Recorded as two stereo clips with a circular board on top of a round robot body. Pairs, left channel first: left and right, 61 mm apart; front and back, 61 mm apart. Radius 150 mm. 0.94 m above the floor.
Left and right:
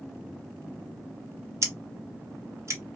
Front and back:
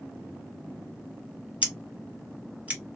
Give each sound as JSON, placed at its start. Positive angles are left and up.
{"t": 1.6, "sound": "scissors", "azimuth_deg": -120, "distance_m": 1.3}